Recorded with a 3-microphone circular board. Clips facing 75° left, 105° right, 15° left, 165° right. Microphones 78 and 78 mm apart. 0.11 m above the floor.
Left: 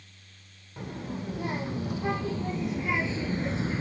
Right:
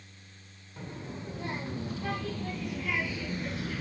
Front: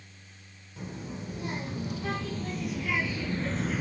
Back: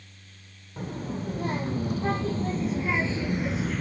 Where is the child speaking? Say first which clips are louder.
Left 5 dB, back 6 dB; 145° left, 3.5 m; by 3.8 s 85° left, 0.7 m.